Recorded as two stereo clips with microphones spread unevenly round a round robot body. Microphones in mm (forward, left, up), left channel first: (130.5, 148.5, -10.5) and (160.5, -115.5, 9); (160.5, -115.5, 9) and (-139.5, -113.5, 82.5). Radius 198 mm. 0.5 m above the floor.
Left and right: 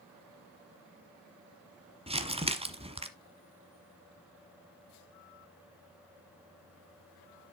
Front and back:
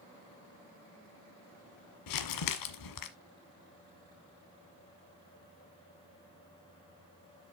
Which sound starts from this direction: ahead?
Crumpling, at 2.1 s.